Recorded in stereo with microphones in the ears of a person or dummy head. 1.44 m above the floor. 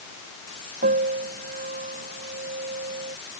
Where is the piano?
50° right (ahead or behind).